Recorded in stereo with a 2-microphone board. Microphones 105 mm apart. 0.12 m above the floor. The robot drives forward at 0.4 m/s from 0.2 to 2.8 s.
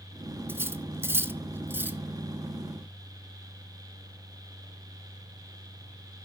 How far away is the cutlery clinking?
About 0.7 m.